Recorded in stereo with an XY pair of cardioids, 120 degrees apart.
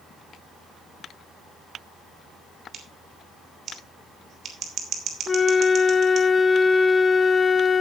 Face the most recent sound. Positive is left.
turn(degrees=25)